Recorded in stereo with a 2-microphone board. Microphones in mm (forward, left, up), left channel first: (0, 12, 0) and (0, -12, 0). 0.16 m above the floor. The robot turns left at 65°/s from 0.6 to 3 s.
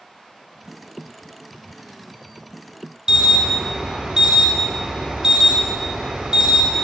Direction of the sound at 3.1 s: 30° right (ahead or behind).